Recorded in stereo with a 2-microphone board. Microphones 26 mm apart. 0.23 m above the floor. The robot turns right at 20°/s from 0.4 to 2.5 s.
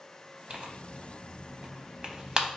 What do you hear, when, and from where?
0.5 s tearing paper: 40° right (ahead or behind), 0.5 m; by 2.5 s 30° right (ahead or behind), 0.5 m